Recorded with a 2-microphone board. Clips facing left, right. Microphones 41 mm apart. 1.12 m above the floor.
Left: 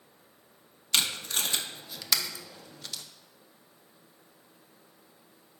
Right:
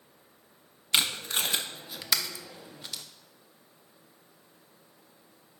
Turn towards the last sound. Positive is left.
turn(degrees=-20)  # may be behind; listen again after turning